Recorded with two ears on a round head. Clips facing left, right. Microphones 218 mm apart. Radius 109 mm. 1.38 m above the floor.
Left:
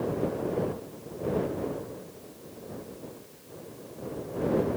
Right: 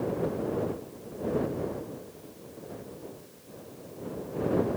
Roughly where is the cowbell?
I don't hear a cowbell.